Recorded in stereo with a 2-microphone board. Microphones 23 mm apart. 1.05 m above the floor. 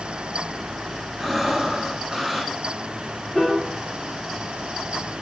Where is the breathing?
5° right (ahead or behind), 1.3 m.